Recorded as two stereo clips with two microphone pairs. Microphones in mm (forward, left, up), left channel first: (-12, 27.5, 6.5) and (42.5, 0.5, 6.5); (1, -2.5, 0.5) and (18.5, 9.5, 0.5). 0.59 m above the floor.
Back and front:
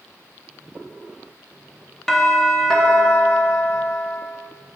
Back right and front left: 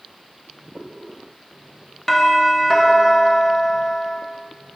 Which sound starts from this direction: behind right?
A doorbell, at 2.1 s.